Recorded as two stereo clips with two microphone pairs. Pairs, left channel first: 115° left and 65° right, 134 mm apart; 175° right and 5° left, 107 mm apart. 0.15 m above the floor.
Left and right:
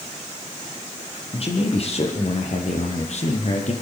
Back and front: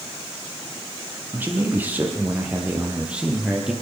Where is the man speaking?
75° left, 6 m; by 3.7 s 85° left, 5.5 m.